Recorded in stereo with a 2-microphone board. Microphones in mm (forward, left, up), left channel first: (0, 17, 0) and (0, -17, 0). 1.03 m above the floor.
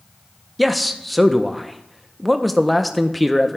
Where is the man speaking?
Centre (ahead or behind), 0.6 m.